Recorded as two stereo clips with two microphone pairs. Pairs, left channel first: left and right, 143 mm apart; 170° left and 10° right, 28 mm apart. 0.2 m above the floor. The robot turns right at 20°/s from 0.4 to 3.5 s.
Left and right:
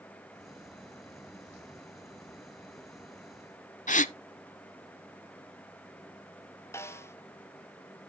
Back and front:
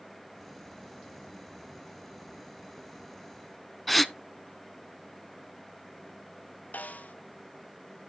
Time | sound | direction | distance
3.9 | a gasp | 90° left | 0.5 m
6.7 | a snare drum | 165° left | 1.0 m